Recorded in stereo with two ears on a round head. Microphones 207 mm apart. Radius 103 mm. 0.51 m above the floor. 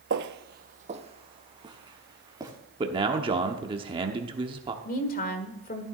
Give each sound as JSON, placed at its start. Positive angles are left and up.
{"t": 0.1, "sound": "footsteps", "side_deg": -50, "distance_m": 0.7}
{"t": 2.8, "sound": "a man speaking", "side_deg": -20, "distance_m": 0.9}
{"t": 4.8, "sound": "a woman speaking", "side_deg": 40, "distance_m": 1.7}